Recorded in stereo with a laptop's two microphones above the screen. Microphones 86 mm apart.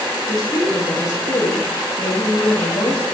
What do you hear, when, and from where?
0.3 s a woman speaking: 45° left (ahead or behind), 1.8 m